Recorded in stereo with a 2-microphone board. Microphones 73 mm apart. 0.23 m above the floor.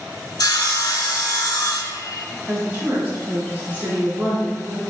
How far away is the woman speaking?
About 1.9 m.